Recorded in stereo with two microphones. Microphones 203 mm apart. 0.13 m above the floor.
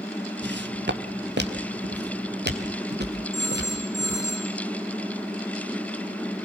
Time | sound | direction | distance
0.4 | footsteps | 70° right (ahead or behind) | 2 m
3.3 | a phone ringing | centre (ahead or behind) | 6.5 m